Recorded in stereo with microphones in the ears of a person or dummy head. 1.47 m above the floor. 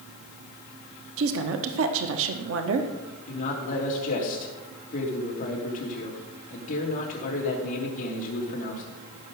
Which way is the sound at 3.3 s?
45° left (ahead or behind).